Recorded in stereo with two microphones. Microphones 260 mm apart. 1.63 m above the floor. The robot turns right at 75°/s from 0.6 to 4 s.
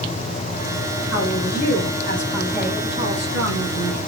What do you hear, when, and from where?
1.1 s a woman speaking: 65° left, 6.5 m; by 4.0 s 80° right, 6.5 m